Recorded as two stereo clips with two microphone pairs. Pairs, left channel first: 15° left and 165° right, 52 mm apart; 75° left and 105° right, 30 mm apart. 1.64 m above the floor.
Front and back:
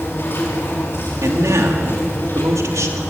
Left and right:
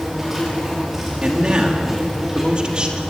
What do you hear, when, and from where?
0.0 s an insect: 25° right, 6.5 m
1.2 s a man speaking: 160° right, 3 m